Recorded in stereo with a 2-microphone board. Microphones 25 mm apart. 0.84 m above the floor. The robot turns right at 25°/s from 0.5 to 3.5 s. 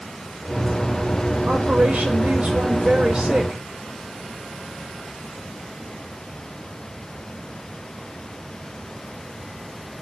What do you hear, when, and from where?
1.5 s a woman speaking: 95° right, 4.5 m; by 3.6 s 40° right, 4.5 m